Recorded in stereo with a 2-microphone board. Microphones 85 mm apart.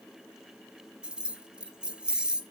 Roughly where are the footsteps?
I don't hear footsteps.